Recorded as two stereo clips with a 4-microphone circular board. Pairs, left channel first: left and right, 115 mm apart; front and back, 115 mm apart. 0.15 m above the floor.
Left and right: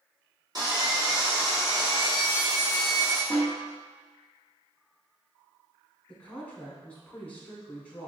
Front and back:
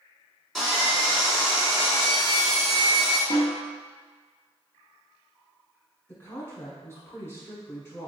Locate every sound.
0.6 s sawing: 85° right, 1.9 m
3.3 s a snare drum: 5° right, 1.8 m
6.1 s a woman speaking: 30° left, 1.1 m